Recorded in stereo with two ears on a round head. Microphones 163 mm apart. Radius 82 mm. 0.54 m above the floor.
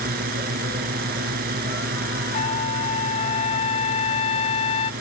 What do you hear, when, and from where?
0.0 s a drone: 55° right (ahead or behind)
2.3 s a trumpet: 35° left (ahead or behind)